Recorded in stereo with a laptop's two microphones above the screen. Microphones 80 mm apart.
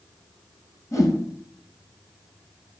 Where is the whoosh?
45° left (ahead or behind), 2 m.